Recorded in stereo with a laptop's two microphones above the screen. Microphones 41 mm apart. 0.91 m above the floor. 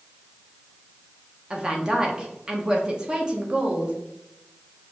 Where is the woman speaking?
25° right (ahead or behind), 0.7 m.